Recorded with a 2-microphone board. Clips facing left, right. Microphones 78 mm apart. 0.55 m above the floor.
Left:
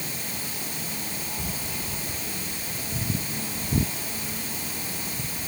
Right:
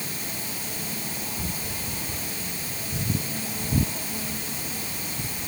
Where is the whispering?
45° right (ahead or behind), 4.5 m.